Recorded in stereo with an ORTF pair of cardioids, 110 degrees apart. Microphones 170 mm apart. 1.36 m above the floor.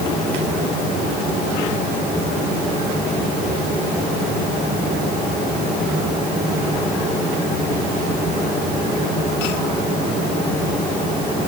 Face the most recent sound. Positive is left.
No sound to turn to.